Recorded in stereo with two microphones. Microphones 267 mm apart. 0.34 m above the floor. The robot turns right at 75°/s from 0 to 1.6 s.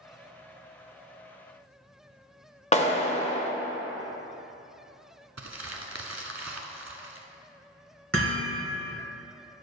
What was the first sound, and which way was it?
A clap, 25° left (ahead or behind).